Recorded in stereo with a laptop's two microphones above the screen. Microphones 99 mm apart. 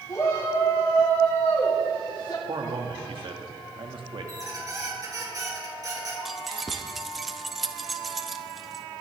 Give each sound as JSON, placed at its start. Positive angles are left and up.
{"t": 0.1, "sound": "a shout", "side_deg": 50, "distance_m": 2.5}
{"t": 2.5, "sound": "a man speaking", "side_deg": -60, "distance_m": 1.6}
{"t": 4.3, "sound": "a squeak", "side_deg": -40, "distance_m": 5.0}
{"t": 6.2, "sound": "keys jangling", "side_deg": 0, "distance_m": 0.6}